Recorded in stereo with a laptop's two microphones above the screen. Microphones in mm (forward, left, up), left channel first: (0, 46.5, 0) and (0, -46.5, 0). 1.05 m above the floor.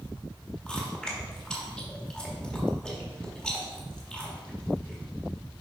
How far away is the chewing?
About 1.2 m.